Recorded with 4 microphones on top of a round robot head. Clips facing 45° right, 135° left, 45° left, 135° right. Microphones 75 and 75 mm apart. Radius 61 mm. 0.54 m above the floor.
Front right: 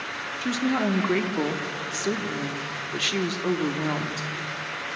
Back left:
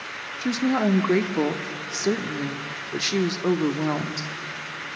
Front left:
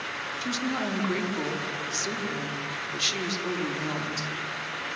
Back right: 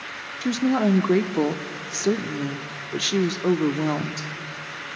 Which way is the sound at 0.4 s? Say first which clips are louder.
Back left 3 dB, back right 10 dB; 155° right.